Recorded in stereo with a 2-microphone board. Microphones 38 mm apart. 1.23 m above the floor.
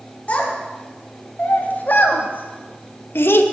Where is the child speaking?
35° left (ahead or behind), 3 m; by 3.4 s 80° left, 1.1 m.